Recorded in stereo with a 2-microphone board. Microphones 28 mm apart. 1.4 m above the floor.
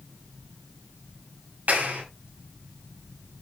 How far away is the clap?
About 9.5 m.